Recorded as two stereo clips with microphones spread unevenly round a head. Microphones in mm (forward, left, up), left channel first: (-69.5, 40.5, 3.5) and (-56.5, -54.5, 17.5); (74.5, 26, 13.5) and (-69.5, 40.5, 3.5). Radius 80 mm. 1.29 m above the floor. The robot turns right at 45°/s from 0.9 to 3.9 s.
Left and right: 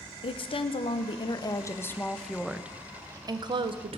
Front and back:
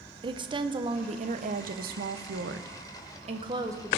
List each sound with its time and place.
0.2 s a woman speaking: 120° left, 0.8 m; by 4.0 s 105° right, 0.8 m